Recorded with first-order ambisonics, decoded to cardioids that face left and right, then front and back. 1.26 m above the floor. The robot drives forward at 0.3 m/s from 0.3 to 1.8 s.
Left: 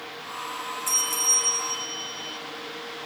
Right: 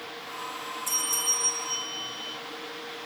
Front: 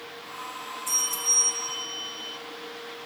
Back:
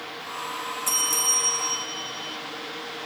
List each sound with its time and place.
0.9 s a bell: 160° left, 0.6 m; by 2.4 s 170° left, 0.8 m